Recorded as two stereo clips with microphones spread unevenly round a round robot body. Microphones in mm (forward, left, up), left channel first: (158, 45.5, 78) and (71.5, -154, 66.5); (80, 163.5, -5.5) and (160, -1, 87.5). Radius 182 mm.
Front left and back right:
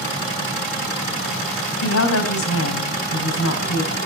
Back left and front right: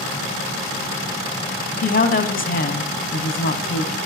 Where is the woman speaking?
90° left, 4 m.